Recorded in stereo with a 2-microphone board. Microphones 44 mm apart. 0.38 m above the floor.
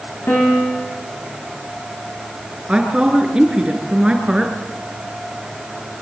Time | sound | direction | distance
0.3 | a piano | 50° left (ahead or behind) | 9.5 m
2.7 | a woman speaking | 20° right (ahead or behind) | 5 m